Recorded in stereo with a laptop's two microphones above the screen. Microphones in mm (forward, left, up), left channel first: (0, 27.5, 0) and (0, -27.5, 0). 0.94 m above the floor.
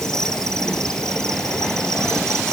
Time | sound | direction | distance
0.0 | an insect | 10° left (ahead or behind) | ?